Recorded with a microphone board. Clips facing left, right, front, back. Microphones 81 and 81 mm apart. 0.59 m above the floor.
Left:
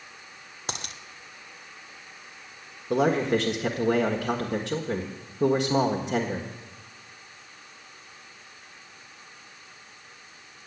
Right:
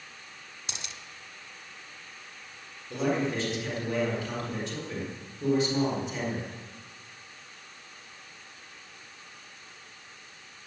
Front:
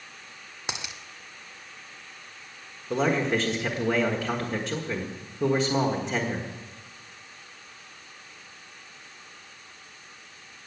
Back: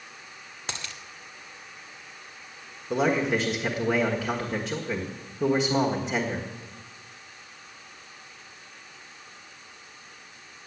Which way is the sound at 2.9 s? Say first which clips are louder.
Left 6 dB, even; 90° left.